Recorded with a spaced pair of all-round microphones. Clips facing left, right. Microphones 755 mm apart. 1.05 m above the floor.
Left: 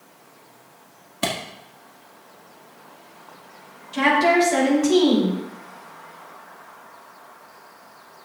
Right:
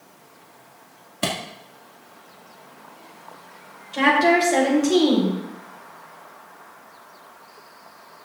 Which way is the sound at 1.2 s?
Centre (ahead or behind).